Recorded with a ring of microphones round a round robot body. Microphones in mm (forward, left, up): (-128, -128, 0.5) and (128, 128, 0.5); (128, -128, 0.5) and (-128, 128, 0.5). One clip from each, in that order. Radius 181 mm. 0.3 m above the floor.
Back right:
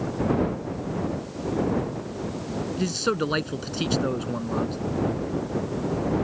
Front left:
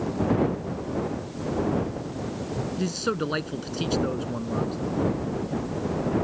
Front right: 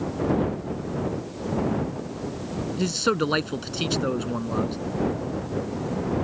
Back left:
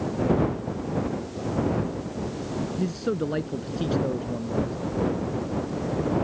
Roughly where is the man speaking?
Ahead right.